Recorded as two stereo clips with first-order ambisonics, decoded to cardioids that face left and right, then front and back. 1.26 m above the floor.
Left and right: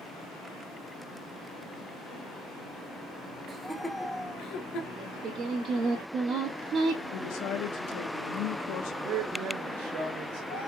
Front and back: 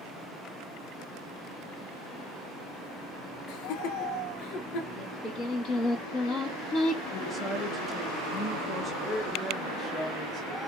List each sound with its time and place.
3.5 s laughter: 20° right, 0.8 m; by 4.9 s 45° left, 1.4 m
5.0 s singing: 45° right, 1.8 m
7.1 s a woman speaking: 85° left, 1.0 m
9.0 s a man speaking: 70° right, 2 m